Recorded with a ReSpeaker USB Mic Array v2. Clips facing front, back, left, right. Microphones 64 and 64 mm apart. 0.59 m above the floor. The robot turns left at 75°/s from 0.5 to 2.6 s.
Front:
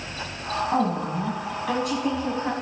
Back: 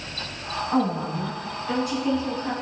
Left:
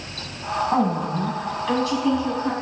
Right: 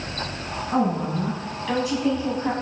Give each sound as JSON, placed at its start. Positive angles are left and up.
{"t": 0.7, "sound": "a woman speaking", "azimuth_deg": 70, "distance_m": 5.5}